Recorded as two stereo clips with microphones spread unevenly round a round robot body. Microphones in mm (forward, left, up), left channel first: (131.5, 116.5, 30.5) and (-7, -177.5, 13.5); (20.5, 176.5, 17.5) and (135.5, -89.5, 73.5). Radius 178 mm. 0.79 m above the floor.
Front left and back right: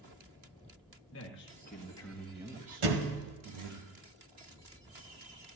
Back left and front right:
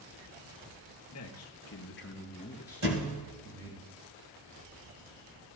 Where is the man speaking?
115° left, 1.2 m; by 3.8 s 135° right, 1.3 m.